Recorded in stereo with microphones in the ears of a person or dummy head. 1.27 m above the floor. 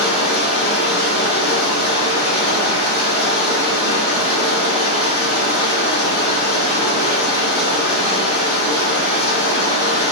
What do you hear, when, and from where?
0.0 s running water: 60° left (ahead or behind), 3.5 m